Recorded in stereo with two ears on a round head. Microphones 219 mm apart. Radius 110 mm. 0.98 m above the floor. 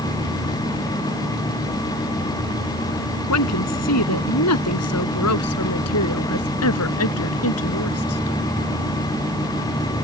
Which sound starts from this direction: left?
A woman speaking, at 3.3 s.